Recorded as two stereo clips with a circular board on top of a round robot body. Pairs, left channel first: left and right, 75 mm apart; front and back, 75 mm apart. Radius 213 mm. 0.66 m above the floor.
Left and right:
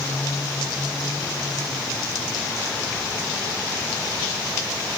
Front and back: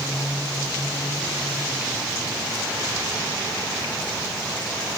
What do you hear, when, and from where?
Only background noise.